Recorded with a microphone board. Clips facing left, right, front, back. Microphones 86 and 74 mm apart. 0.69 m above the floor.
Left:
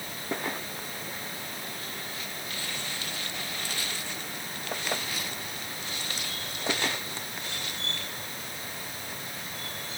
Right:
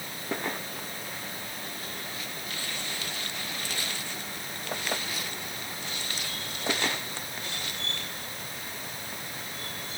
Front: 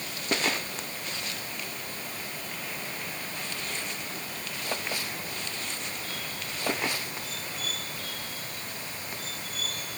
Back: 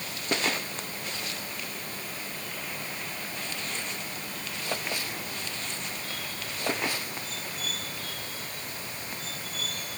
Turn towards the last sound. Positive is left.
No sound to turn to.